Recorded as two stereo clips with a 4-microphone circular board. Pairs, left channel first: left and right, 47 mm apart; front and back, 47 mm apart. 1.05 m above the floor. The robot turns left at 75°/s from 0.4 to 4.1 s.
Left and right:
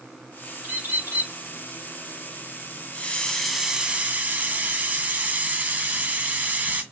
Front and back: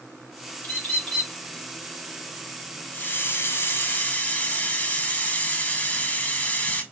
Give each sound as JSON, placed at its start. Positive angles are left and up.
{"t": 0.6, "sound": "a bird", "azimuth_deg": -40, "distance_m": 1.7}
{"t": 2.9, "sound": "a hiss", "azimuth_deg": 40, "distance_m": 1.0}